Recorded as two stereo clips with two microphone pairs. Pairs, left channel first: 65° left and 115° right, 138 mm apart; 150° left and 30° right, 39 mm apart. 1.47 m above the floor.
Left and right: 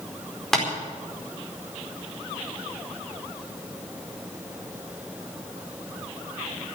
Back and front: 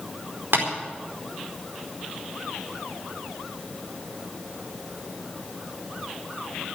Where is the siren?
I don't hear a siren.